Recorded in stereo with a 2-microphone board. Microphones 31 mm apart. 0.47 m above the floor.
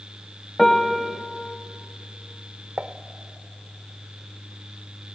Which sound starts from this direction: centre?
A piano, at 0.6 s.